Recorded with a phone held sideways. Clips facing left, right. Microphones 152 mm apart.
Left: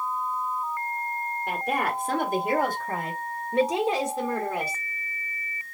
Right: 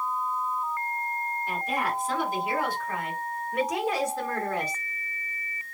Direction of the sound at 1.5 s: 65° left (ahead or behind).